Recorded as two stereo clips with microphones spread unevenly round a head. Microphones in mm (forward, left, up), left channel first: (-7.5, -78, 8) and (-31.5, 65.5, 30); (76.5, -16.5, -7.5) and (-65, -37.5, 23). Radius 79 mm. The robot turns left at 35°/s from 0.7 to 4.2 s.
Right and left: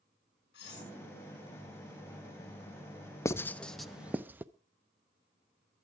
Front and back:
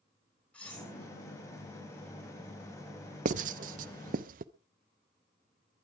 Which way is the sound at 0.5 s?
75° right.